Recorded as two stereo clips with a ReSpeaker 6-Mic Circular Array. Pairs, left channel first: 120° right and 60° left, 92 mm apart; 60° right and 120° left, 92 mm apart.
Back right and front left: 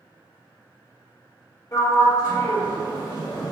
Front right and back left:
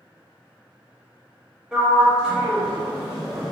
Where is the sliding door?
155° right, 0.9 m.